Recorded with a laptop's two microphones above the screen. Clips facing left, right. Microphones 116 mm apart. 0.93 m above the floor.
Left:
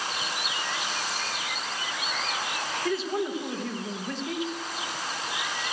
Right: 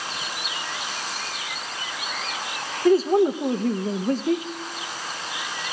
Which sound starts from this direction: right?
A man speaking, at 2.9 s.